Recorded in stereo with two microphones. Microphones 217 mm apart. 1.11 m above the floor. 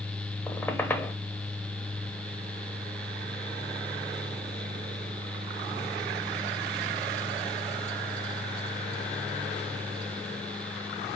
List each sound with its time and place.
0.5 s a squeak: 10° left (ahead or behind), 0.9 m